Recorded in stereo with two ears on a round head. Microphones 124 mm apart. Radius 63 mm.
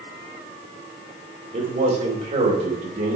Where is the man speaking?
50° right (ahead or behind), 2.5 m.